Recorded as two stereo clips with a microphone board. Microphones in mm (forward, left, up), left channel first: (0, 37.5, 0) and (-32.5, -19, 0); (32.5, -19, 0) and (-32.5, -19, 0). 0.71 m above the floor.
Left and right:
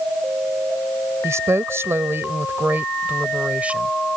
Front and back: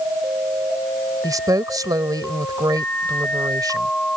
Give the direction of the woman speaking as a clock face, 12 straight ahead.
5 o'clock.